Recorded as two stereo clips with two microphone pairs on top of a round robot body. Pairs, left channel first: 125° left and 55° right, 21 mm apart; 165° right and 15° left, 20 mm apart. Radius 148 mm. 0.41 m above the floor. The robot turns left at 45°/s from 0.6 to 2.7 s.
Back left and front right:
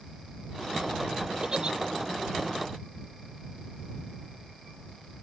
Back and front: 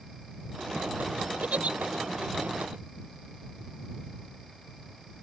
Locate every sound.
1.4 s a giggle: 5° left; by 1.8 s 10° right